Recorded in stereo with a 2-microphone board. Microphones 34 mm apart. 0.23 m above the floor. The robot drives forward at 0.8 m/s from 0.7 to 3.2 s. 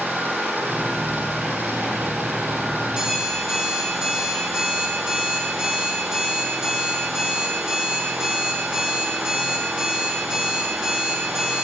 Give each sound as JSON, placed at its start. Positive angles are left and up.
{"t": 0.0, "sound": "an engine running", "side_deg": -75, "distance_m": 5.5}
{"t": 2.9, "sound": "an alarm clock", "side_deg": -20, "distance_m": 7.5}